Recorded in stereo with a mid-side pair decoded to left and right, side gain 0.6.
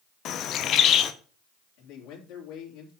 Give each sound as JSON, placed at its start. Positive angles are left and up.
{"t": 0.2, "sound": "a bird", "azimuth_deg": 55, "distance_m": 1.0}
{"t": 1.8, "sound": "a man speaking", "azimuth_deg": 70, "distance_m": 3.0}